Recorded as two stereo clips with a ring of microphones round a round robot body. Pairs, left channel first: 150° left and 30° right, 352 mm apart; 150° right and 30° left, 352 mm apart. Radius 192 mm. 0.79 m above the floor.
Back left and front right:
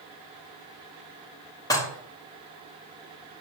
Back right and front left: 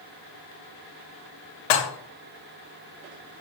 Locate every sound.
1.7 s dishes clattering: 130° right, 1.3 m